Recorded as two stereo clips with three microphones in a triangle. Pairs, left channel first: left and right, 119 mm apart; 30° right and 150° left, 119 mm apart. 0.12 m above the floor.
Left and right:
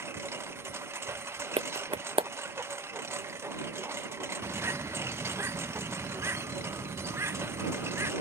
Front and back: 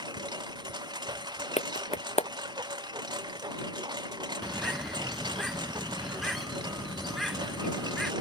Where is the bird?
120° right.